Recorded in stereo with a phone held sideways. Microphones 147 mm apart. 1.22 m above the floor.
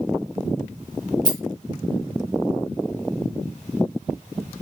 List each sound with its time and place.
1.2 s a rattle: 30° right (ahead or behind), 0.7 m